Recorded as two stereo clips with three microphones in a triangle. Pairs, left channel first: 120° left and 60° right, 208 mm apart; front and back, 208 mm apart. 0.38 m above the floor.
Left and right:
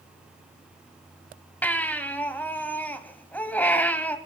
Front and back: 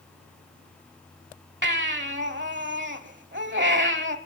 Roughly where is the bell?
I don't hear a bell.